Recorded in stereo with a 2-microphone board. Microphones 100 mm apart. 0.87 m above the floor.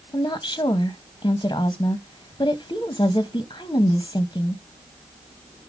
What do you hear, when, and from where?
0.1 s a woman speaking: 45° left (ahead or behind), 0.9 m